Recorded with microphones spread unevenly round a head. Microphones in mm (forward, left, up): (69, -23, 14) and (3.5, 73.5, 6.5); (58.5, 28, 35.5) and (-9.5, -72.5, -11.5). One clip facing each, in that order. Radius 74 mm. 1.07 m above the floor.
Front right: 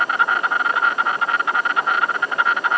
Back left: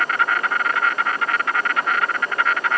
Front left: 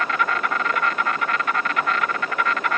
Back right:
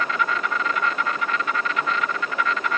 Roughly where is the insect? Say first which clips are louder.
Front right 1 dB, front left 1 dB; ahead.